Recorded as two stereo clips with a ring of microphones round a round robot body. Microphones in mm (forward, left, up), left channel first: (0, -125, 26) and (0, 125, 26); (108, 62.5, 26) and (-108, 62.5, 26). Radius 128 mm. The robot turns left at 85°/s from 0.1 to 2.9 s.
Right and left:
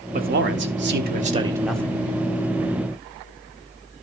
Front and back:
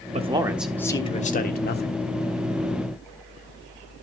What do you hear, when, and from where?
0.1 s a man speaking: 135° left, 1.2 m; by 1.9 s 15° right, 1.2 m